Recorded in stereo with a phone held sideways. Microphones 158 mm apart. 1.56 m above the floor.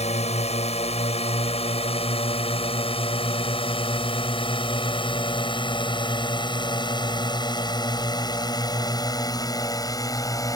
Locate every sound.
0.0 s a drone: 45° left (ahead or behind); by 10.6 s 25° left (ahead or behind)